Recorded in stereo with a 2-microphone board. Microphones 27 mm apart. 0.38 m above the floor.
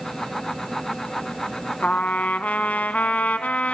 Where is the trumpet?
80° left, 0.6 m.